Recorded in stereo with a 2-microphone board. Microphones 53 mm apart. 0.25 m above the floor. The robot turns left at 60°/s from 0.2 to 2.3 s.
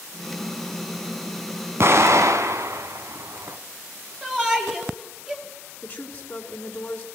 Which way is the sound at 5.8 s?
30° left (ahead or behind).